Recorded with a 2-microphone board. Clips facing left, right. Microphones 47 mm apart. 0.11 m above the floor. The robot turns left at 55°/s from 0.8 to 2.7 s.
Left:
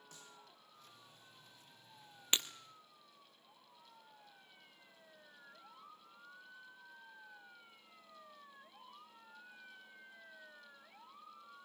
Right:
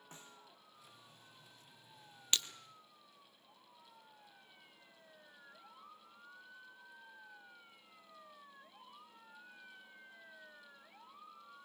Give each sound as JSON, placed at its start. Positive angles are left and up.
{"t": 0.1, "sound": "a snare drum", "side_deg": -30, "distance_m": 2.5}
{"t": 2.3, "sound": "breaking glass", "side_deg": 25, "distance_m": 1.0}